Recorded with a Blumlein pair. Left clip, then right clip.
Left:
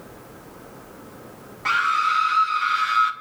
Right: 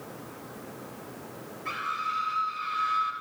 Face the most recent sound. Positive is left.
turn(degrees=45)